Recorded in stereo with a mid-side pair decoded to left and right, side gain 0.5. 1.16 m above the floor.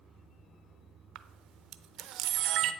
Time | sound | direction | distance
1.1 | a camera shutter | 70° right | 0.6 m